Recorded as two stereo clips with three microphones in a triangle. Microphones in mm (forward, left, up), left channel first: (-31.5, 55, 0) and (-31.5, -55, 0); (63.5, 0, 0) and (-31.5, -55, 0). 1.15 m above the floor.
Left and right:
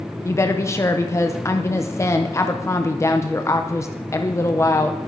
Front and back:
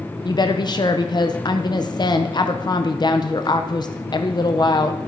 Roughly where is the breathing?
No breathing in this recording.